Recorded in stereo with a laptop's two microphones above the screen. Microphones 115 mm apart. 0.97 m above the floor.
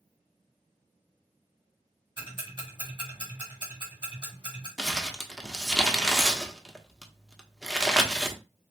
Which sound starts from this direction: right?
Ticking, at 2.2 s.